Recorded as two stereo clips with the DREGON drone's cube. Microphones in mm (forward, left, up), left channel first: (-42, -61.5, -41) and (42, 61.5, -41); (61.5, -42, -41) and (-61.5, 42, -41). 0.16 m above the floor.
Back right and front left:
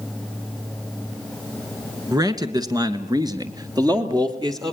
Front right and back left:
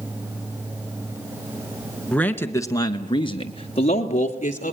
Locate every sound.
2.1 s a man speaking: 40° left, 1.2 m; by 4.7 s 5° right, 2 m